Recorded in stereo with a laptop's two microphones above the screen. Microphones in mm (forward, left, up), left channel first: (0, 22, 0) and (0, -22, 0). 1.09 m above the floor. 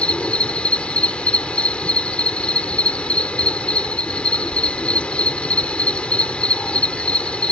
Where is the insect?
25° left (ahead or behind).